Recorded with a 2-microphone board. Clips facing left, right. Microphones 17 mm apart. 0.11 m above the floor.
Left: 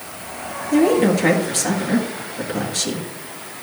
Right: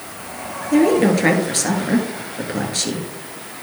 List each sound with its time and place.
0.7 s a woman speaking: 15° right (ahead or behind), 2 m